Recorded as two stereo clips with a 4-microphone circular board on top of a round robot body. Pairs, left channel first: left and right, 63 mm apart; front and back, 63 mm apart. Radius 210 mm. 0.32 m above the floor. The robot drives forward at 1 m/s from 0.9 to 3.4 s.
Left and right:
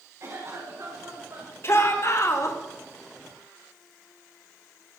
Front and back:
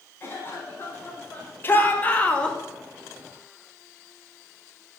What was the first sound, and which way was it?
A cough, 55° right.